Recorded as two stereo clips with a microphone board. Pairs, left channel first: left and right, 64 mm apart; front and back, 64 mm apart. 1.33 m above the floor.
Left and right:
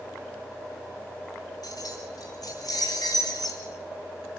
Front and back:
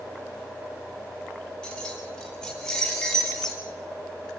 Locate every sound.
1.6 s keys jangling: 80° left, 3.5 m; by 3.6 s 85° left, 5 m